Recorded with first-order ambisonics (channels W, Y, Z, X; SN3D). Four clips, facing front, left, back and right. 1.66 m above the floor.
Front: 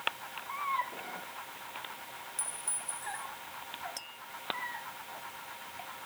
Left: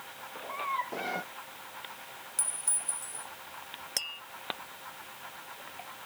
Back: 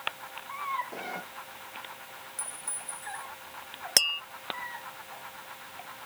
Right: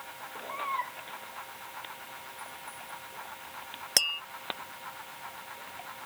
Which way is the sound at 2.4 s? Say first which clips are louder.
Left 5 dB, even; 85° left.